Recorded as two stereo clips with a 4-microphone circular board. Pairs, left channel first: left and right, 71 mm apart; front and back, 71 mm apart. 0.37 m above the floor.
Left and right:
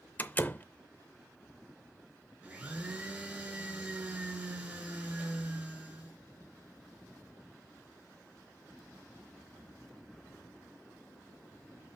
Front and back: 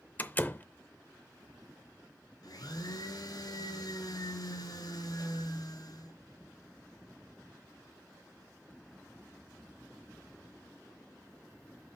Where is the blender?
20° right, 3 m.